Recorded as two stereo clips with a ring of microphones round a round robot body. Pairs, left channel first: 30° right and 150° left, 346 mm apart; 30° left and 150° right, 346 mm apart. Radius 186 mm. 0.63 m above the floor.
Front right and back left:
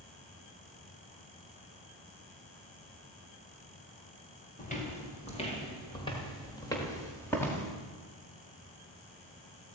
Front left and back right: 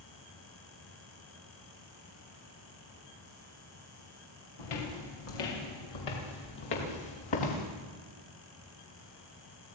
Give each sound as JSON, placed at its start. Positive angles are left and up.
{"t": 4.6, "sound": "footsteps", "azimuth_deg": 40, "distance_m": 5.5}